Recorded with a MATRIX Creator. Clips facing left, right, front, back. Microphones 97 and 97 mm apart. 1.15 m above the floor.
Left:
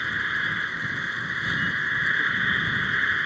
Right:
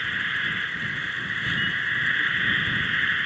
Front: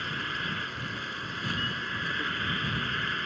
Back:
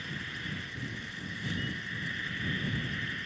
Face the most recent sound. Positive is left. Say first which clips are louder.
# left 1 dB, front 7 dB
turn(degrees=20)